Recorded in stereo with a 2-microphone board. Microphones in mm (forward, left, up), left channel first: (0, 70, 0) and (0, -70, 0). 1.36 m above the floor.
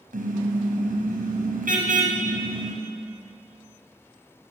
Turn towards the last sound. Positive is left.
turn(degrees=-80)